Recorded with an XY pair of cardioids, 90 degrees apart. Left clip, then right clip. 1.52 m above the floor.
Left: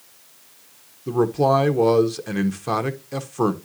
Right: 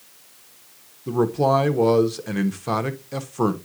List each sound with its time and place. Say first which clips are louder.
1.1 s a man speaking: left 1 dB; 10° left, 1.1 m